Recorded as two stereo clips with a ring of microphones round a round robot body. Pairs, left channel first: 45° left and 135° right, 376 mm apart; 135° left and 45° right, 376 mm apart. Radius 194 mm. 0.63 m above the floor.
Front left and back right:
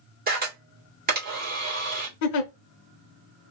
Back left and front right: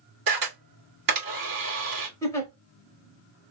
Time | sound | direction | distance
0.3 | a camera shutter | 70° right | 1.8 m
2.2 | a giggle | 55° left | 0.6 m